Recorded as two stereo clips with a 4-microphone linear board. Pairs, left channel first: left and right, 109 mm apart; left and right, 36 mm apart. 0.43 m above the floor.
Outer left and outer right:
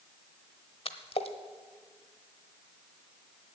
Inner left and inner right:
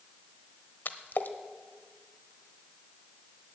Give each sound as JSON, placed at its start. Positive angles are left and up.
{"t": 0.8, "sound": "a splash", "side_deg": 65, "distance_m": 1.1}